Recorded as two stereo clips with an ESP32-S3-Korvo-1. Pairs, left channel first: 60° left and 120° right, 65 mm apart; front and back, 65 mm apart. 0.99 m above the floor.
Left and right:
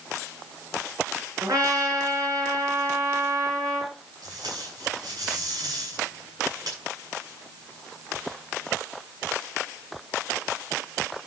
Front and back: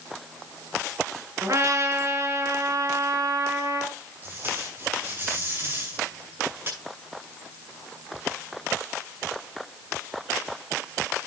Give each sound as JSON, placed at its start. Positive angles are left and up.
{"t": 1.4, "sound": "a trumpet", "azimuth_deg": -140, "distance_m": 5.0}
{"t": 4.2, "sound": "tape being pulled", "azimuth_deg": -125, "distance_m": 7.0}